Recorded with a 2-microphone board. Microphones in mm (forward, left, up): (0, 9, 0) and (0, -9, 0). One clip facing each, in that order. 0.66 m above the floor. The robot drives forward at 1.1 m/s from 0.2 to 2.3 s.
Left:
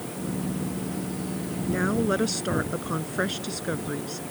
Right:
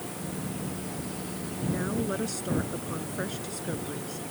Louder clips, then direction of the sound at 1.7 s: Left 6 dB; 30° left (ahead or behind).